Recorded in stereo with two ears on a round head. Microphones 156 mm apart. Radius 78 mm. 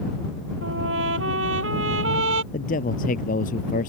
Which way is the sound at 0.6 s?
80° right.